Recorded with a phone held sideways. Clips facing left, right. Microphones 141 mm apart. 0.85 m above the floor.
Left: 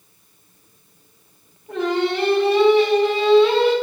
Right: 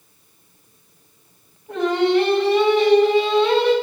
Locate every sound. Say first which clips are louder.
1.7 s singing: right 3 dB; 5° left (ahead or behind), 1.9 m